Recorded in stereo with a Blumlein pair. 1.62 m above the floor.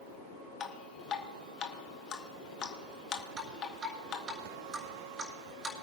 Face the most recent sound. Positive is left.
turn(degrees=-20)